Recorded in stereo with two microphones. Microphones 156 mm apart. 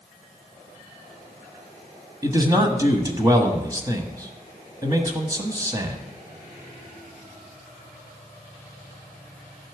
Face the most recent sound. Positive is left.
turn(degrees=-25)  # may be behind; listen again after turning